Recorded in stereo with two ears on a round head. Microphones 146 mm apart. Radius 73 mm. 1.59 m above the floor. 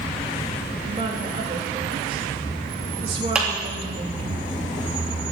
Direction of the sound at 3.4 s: 5° right (ahead or behind).